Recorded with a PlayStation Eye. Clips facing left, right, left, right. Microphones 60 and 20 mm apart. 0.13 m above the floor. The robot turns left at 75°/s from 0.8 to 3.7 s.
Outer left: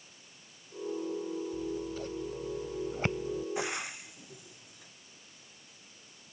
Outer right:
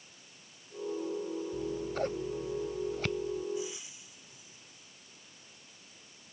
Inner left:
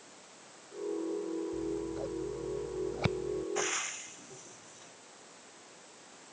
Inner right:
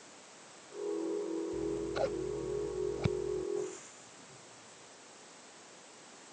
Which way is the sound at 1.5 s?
85° right.